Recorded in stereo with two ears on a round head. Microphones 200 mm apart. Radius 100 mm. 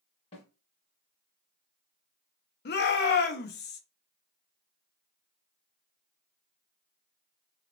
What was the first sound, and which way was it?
A snare drum, 30° left (ahead or behind).